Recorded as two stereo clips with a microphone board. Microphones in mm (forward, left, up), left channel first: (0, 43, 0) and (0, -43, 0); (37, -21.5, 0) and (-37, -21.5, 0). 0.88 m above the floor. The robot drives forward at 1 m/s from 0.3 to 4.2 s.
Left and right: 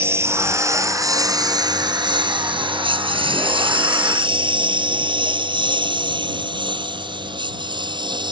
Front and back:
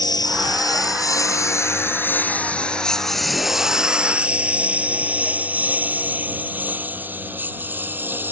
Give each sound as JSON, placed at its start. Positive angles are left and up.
{"t": 0.0, "sound": "a lawn mower", "azimuth_deg": -30}